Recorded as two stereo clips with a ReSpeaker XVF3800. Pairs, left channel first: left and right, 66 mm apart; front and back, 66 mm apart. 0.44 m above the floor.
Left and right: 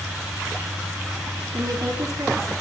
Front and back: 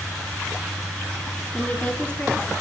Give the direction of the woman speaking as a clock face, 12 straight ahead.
2 o'clock.